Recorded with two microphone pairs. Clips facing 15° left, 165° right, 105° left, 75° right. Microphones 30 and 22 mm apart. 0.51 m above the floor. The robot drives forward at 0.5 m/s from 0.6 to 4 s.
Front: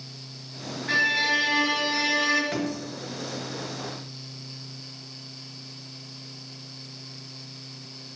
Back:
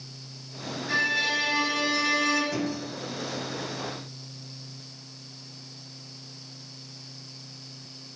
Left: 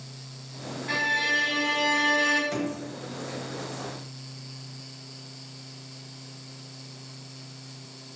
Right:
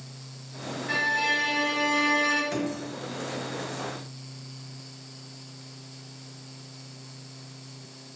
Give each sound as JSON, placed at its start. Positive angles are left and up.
{"t": 0.9, "sound": "a violin", "azimuth_deg": 45, "distance_m": 1.9}
{"t": 2.5, "sound": "a drawer", "azimuth_deg": 0, "distance_m": 1.1}